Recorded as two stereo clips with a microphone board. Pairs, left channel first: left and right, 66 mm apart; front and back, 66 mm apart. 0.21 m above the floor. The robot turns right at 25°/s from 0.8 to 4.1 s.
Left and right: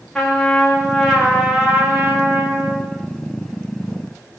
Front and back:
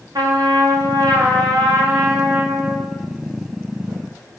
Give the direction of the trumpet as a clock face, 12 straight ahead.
6 o'clock.